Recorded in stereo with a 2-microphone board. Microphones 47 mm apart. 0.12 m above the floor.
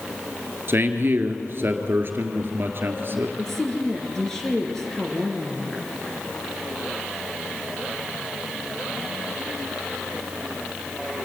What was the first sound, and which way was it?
A man speaking, 55° right (ahead or behind).